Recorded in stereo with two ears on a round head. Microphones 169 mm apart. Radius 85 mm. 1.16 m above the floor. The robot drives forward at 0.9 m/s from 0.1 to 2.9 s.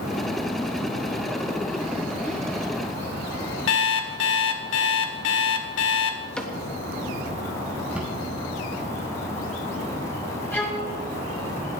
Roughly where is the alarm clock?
Left.